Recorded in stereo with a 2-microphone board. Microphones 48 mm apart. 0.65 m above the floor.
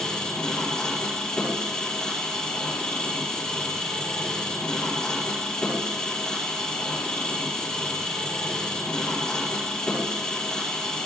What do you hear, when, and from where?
0.0 s an engine running: 15° left (ahead or behind), 6 m